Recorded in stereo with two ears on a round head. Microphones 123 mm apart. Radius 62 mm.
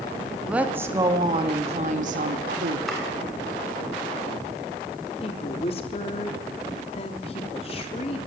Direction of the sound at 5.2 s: 45° left (ahead or behind).